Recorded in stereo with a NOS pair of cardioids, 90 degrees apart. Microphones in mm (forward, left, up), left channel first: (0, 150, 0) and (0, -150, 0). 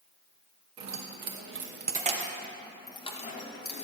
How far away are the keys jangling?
About 1.2 m.